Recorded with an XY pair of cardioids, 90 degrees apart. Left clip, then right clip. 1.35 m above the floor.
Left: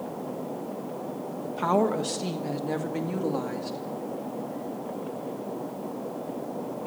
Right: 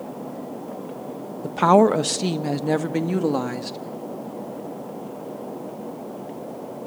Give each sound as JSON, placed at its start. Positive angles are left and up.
{"t": 1.4, "sound": "a woman speaking", "azimuth_deg": -65, "distance_m": 1.2}